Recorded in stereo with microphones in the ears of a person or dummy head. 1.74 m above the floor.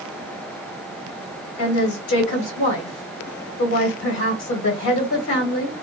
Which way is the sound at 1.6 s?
65° left (ahead or behind).